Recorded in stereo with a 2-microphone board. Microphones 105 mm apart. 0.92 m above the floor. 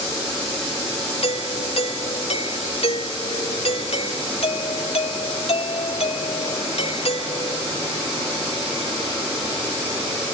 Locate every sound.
1.2 s a doorbell: 75° left (ahead or behind)